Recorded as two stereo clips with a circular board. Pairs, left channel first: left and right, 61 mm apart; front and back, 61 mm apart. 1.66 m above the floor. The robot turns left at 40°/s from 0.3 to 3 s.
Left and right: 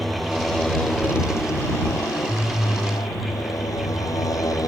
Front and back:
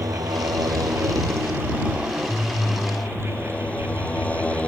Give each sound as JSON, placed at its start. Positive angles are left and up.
{"t": 0.0, "sound": "a motorcycle", "azimuth_deg": 180}